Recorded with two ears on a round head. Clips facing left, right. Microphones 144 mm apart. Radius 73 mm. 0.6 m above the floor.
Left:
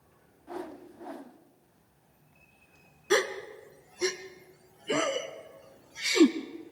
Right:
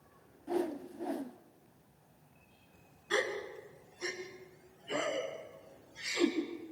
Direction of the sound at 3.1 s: 70° left (ahead or behind).